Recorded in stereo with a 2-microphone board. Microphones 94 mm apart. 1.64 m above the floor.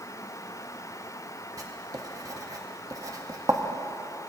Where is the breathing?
No breathing in this recording.